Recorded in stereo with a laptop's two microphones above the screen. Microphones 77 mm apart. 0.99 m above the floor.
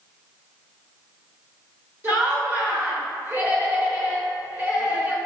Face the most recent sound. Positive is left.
turn(degrees=-30)  # may be behind; listen again after turning